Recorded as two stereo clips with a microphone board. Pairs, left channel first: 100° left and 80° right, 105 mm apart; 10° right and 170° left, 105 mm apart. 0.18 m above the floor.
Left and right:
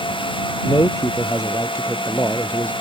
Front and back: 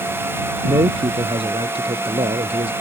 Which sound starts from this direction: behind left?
A man speaking, at 0.6 s.